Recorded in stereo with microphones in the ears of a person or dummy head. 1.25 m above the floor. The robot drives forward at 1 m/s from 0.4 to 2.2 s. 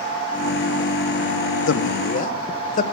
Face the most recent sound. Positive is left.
turn(degrees=40)  # may be behind; listen again after turning